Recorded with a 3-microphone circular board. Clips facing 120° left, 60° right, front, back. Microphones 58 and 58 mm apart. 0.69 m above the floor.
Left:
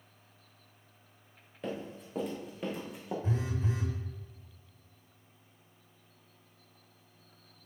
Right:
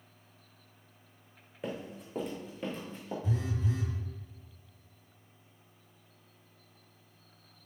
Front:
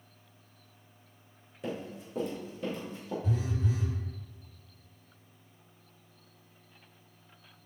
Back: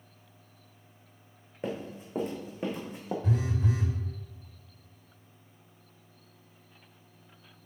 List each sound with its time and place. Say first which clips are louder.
1.6 s running footsteps: left 1 dB, back 2 dB; 145° right, 2.5 m; by 3.1 s 165° right, 2.5 m
3.2 s a phone buzzing: right 1 dB, back 3 dB; 165° left, 1.0 m